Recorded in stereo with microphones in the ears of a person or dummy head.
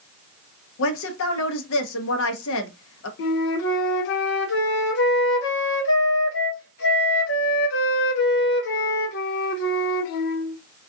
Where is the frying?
No frying in this recording.